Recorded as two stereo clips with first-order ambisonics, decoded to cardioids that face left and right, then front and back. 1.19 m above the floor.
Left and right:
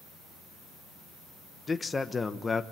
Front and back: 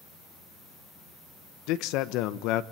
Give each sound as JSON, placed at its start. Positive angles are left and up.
{"t": 1.7, "sound": "a man speaking", "azimuth_deg": 15, "distance_m": 1.2}